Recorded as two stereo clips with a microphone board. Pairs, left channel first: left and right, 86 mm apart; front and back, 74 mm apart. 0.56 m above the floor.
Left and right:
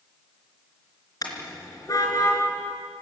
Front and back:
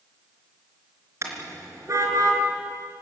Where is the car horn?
130° left, 4 m; by 2.4 s 140° left, 4.5 m.